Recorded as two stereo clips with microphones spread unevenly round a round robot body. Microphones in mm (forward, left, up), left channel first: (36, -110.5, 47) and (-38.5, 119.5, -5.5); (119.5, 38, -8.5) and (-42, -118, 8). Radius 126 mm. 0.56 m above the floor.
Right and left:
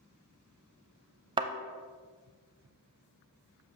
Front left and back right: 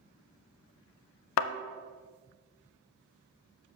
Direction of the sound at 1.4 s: 35° left.